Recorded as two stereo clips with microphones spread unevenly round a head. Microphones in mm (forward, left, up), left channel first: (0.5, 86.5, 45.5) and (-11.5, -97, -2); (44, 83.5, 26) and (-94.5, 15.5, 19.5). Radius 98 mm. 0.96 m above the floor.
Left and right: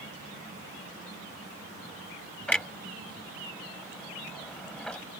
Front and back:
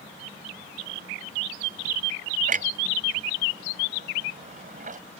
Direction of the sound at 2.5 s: 170° left.